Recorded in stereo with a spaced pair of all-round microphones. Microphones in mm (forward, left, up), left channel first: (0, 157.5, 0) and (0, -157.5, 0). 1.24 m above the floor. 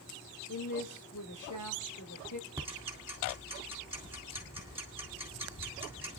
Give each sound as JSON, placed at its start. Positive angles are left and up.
{"t": 0.5, "sound": "a woman speaking", "side_deg": 70, "distance_m": 2.5}
{"t": 2.6, "sound": "ticking", "side_deg": -10, "distance_m": 3.5}